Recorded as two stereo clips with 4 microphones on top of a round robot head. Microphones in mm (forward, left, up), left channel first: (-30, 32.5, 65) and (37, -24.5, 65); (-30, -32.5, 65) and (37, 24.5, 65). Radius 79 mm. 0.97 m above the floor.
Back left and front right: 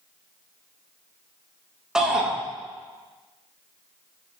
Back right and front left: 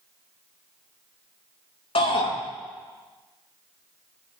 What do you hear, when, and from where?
1.9 s a shout: 125° right, 9.5 m